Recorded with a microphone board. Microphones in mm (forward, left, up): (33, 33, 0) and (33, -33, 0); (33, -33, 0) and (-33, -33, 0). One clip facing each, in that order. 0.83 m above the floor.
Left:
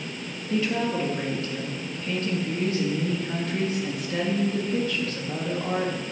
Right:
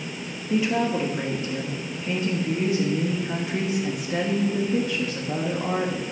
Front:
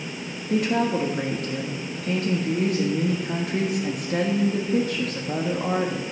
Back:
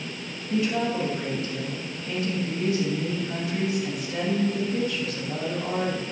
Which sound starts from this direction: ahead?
A woman speaking, at 0.5 s.